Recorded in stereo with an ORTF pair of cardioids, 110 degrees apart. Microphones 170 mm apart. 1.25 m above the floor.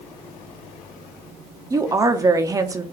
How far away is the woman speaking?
About 0.5 m.